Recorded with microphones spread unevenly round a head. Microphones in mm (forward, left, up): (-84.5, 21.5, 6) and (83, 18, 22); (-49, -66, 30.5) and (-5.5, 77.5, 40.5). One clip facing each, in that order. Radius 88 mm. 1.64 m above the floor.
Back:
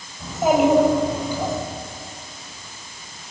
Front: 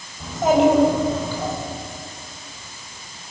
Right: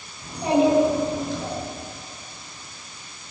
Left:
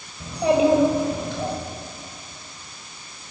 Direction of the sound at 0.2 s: 90° left.